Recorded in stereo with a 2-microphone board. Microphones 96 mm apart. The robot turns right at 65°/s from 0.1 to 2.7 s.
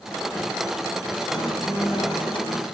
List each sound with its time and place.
1.3 s a guitar: 45° left, 4 m; by 2.6 s 135° left, 4 m